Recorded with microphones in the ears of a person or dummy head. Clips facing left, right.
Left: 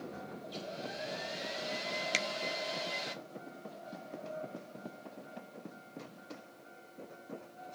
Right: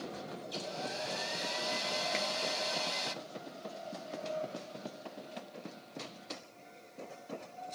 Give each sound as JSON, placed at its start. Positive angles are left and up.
{"t": 0.4, "sound": "a hair dryer", "side_deg": -65, "distance_m": 1.8}
{"t": 2.1, "sound": "a finger snap", "side_deg": 45, "distance_m": 0.7}